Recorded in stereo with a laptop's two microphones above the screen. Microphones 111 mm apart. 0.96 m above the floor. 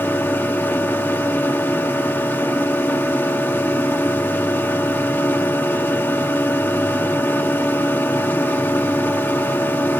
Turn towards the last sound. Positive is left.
turn(degrees=20)  # may be behind; listen again after turning